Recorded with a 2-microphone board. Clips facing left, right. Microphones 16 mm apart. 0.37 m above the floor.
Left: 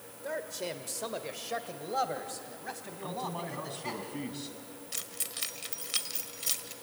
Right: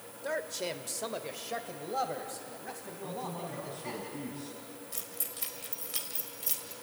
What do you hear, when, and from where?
0.2 s a man speaking: 20° right (ahead or behind), 1.0 m; by 4.0 s 25° left (ahead or behind), 3 m
3.0 s a man speaking: 70° left (ahead or behind), 3 m
4.9 s keys jangling: 35° left (ahead or behind), 1.2 m